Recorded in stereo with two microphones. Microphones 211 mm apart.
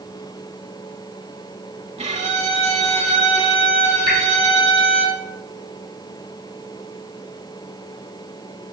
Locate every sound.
2.0 s a violin: 30° right (ahead or behind), 0.5 m
4.1 s dripping: 45° left (ahead or behind), 1.0 m